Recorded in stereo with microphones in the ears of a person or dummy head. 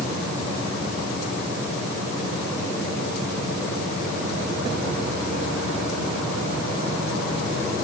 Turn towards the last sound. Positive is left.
No sound to turn to.